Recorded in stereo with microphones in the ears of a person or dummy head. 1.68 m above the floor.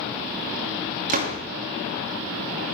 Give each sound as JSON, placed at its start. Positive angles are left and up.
{"t": 1.1, "sound": "a door slam", "side_deg": -45, "distance_m": 2.0}